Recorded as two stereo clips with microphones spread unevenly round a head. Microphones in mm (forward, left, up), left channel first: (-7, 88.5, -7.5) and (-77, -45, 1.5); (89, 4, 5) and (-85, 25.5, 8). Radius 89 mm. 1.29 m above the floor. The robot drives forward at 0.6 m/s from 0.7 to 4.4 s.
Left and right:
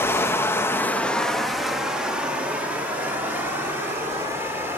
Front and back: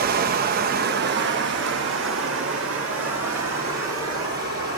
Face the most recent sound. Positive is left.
turn(degrees=170)